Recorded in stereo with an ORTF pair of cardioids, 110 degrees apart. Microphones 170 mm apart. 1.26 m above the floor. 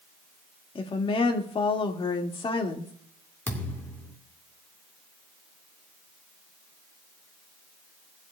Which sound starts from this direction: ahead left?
A woman speaking, at 0.8 s.